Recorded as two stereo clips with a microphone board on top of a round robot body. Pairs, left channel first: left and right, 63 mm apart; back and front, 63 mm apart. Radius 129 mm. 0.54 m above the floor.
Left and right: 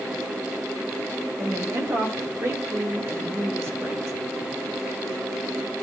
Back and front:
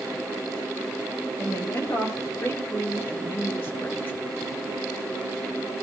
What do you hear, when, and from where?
1.4 s a woman speaking: 135° right, 4.5 m; by 4.1 s 125° right, 3 m